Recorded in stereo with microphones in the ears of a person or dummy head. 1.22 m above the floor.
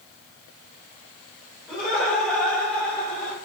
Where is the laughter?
Centre (ahead or behind), 4 m; by 3.3 s 10° left (ahead or behind), 5.5 m.